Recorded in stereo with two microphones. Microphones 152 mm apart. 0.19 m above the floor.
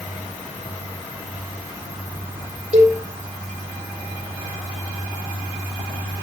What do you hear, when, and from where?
2.7 s a cowbell: 45° right (ahead or behind), 3.5 m